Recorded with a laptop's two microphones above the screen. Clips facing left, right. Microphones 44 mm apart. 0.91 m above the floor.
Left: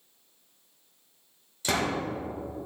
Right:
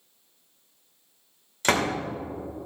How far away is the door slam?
About 2.0 m.